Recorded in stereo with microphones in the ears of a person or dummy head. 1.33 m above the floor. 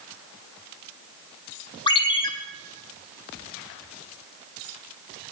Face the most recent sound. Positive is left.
turn(degrees=25)  # may be behind; listen again after turning